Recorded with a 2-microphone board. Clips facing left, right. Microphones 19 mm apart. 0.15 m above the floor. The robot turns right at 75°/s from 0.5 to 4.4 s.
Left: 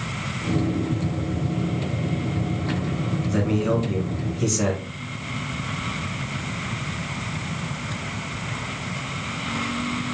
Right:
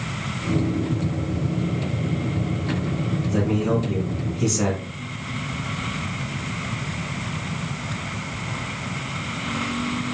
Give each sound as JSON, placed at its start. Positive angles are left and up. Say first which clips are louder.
{"t": 3.3, "sound": "a man speaking", "louder": "even", "side_deg": 25, "distance_m": 1.1}